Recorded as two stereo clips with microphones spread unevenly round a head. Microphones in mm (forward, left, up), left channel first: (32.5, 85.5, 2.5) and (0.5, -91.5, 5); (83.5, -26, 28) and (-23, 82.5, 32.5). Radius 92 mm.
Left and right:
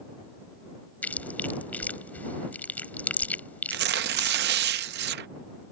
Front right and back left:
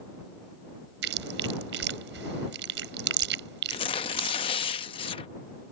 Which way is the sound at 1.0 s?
160° left.